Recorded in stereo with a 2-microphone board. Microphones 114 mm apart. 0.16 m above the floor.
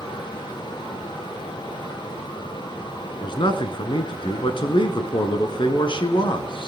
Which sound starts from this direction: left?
A man speaking, at 3.2 s.